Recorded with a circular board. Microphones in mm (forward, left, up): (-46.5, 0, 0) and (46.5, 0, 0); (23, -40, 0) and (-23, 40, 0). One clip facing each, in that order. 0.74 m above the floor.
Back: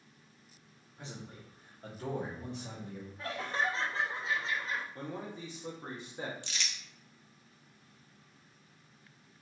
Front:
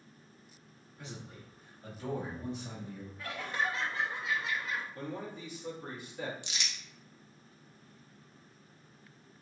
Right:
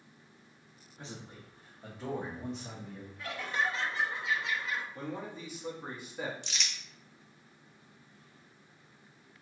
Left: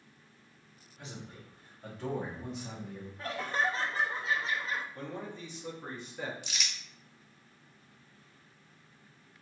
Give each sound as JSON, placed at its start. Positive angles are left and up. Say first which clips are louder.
{"t": 1.0, "sound": "a man speaking", "louder": "even, even", "azimuth_deg": -120, "distance_m": 1.1}
{"t": 3.2, "sound": "laughter", "louder": "back 1 dB, left 2 dB", "azimuth_deg": 145, "distance_m": 0.6}
{"t": 5.0, "sound": "a man speaking", "louder": "front 1 dB, right 1 dB", "azimuth_deg": -140, "distance_m": 1.1}
{"t": 6.4, "sound": "crumpling", "louder": "even, even", "azimuth_deg": 45, "distance_m": 0.7}